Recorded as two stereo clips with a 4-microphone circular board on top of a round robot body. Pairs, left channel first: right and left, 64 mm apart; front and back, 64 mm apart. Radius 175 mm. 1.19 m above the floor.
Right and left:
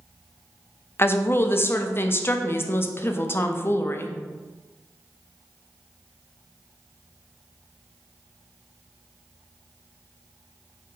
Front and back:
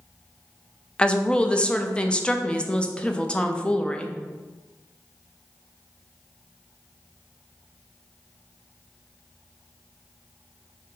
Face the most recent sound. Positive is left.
turn(degrees=-65)